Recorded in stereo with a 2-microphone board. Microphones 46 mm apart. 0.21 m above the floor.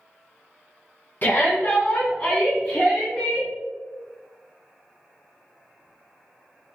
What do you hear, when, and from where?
1.2 s a shout: 50° left (ahead or behind), 1.5 m; by 3.5 s 20° left (ahead or behind), 2 m